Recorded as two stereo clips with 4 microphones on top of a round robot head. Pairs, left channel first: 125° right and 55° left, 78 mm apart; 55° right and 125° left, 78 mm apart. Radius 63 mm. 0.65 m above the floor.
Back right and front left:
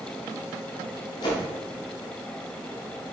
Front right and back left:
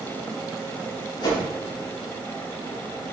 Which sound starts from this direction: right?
A whoosh, at 1.2 s.